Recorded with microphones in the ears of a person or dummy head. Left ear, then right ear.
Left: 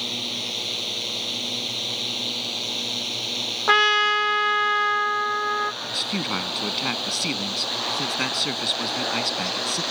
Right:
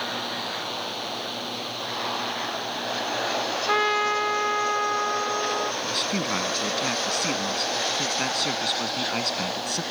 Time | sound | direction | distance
0.0 | a drone | 15° left (ahead or behind) | ?
3.7 | a trumpet | 80° left | ?
5.8 | a man speaking | 5° left (ahead or behind) | ?